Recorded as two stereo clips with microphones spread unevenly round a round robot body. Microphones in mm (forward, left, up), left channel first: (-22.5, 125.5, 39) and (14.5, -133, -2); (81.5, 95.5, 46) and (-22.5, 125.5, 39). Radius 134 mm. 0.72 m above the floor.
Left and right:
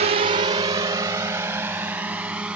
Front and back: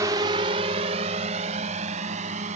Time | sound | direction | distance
0.0 | a drone | 135° right | ?